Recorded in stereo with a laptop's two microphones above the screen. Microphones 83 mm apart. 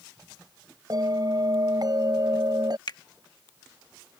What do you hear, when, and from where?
0.9 s a bell: 50° right (ahead or behind)
2.9 s a finger snap: 55° left (ahead or behind)